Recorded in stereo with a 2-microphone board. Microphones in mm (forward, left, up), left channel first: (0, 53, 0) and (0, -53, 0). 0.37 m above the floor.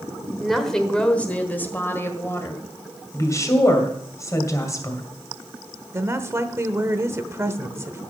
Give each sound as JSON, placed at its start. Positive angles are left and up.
{"t": 0.4, "sound": "a woman speaking", "side_deg": 0, "distance_m": 1.3}
{"t": 3.1, "sound": "a woman speaking", "side_deg": 30, "distance_m": 2.0}
{"t": 5.9, "sound": "a woman speaking", "side_deg": -25, "distance_m": 0.9}